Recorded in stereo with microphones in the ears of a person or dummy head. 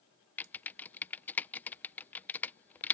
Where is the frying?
No frying in this recording.